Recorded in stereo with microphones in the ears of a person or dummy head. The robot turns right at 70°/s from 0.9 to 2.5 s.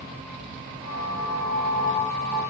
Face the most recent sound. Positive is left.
No sound to turn to.